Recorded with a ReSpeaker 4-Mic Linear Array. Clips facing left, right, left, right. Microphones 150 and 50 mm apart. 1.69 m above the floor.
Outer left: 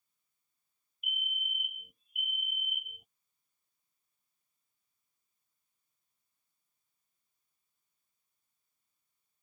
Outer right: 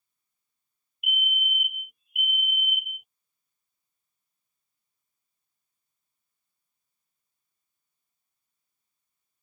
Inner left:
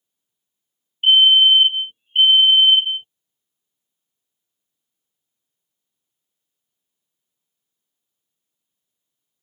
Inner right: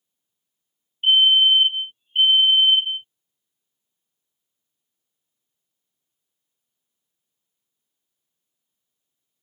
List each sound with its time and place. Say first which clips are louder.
1.0 s a fire alarm: outer right 10 dB, inner left 3 dB; 35° left (ahead or behind)